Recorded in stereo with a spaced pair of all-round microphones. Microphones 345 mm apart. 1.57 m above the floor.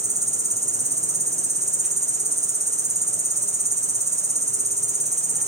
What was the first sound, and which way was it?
An insect, 20° right (ahead or behind).